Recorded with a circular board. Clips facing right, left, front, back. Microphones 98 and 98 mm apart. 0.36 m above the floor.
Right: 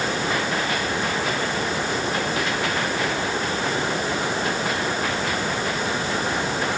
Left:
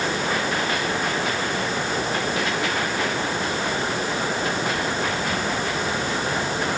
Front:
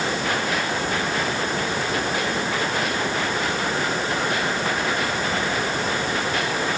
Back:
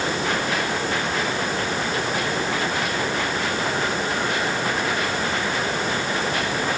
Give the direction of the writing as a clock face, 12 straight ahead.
No writing in this recording.